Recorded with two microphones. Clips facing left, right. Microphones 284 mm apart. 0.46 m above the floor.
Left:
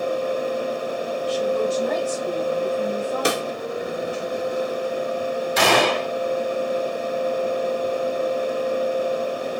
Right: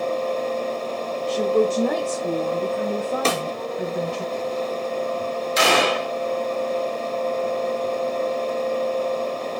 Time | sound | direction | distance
1.3 | a woman speaking | 50° right (ahead or behind) | 1.3 m
3.2 | a snare drum | 15° left (ahead or behind) | 1.3 m
5.6 | a gunshot | 60° left (ahead or behind) | 3 m